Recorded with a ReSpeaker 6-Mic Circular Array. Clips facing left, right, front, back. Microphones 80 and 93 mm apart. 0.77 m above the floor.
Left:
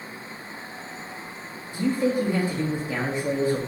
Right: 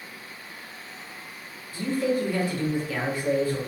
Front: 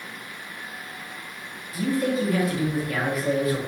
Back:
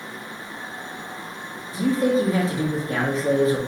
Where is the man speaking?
145° left, 0.7 m.